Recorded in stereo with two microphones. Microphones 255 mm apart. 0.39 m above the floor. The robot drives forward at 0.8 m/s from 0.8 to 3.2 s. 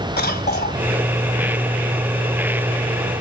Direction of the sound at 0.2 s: 40° left (ahead or behind).